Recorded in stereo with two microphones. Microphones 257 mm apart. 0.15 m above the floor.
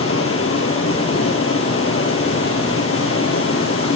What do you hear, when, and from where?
0.0 s running water: 55° left (ahead or behind), 3.5 m